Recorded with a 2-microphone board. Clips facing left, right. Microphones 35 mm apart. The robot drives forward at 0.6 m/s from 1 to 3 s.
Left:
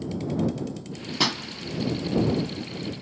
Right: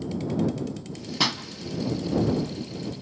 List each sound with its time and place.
1.2 s a pop: centre (ahead or behind), 0.7 m